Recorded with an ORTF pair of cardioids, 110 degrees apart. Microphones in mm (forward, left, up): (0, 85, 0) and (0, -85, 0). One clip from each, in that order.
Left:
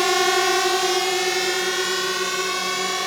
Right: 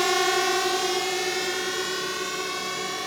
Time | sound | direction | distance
0.0 | a drone | 20° left | ?